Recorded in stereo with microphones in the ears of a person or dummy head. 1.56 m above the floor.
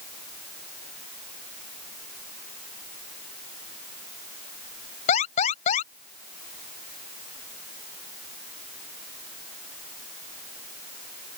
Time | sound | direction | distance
5.1 | an alarm | 40° left (ahead or behind) | ?